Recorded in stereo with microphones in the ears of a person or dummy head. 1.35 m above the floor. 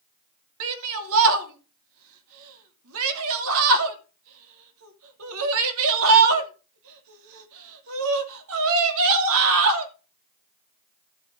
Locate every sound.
0.6 s a shout: 75° right (ahead or behind), 2.5 m